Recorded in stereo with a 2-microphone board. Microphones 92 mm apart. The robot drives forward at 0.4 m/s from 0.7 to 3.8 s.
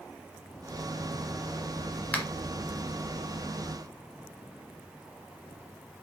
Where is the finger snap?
15° left (ahead or behind), 1.6 m; by 2.3 s 20° left (ahead or behind), 1.6 m.